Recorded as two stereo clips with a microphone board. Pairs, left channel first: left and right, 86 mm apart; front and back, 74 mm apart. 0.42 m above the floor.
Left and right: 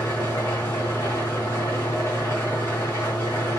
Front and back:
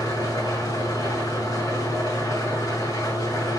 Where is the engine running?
25° left, 4.5 m.